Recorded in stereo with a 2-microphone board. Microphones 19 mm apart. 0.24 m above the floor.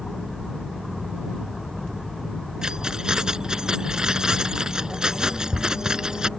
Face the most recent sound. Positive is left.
turn(degrees=-40)  # may be behind; listen again after turning